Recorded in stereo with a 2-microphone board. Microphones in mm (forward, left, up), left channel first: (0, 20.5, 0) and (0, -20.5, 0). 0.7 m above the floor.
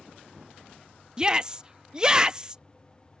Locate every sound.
1.2 s a shout: 20° right (ahead or behind)